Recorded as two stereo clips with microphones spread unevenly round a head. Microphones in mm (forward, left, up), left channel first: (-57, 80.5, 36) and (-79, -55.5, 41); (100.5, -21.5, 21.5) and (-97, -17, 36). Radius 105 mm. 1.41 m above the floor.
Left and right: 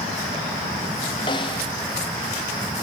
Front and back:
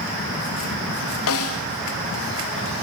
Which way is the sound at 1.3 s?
15° left.